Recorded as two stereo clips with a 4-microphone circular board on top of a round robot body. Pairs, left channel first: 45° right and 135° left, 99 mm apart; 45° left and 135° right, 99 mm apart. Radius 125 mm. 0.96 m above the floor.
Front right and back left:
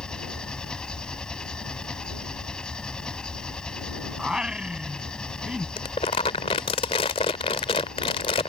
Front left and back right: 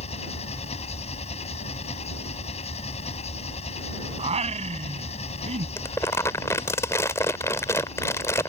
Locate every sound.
0.0 s an engine running: 40° left
4.2 s singing: 140° right
5.8 s crumpling: 15° right